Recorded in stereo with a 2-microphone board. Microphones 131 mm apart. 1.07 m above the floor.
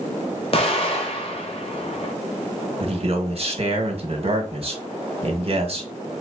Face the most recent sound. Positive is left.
turn(degrees=-50)  # may be behind; listen again after turning